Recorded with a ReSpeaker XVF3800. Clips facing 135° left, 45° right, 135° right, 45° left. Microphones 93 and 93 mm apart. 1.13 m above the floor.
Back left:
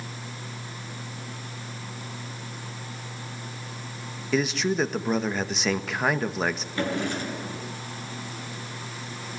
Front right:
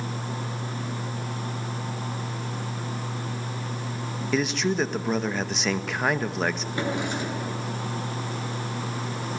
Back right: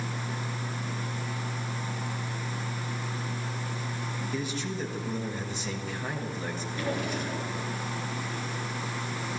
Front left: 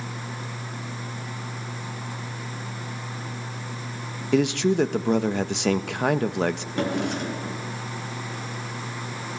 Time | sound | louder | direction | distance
4.3 | a man speaking | even, front left 15 dB | 45° left | 1.5 m
6.8 | a drawer | back left 1 dB, front left 3 dB | 25° left | 6.5 m